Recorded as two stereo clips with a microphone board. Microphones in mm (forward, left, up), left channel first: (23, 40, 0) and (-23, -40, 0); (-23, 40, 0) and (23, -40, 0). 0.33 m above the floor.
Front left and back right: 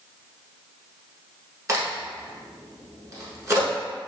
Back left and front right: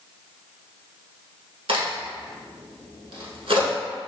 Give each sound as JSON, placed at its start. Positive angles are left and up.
{"t": 1.7, "sound": "a crack", "azimuth_deg": -65, "distance_m": 0.9}